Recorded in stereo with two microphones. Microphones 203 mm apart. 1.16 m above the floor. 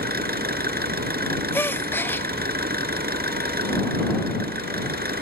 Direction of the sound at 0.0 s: 50° right (ahead or behind).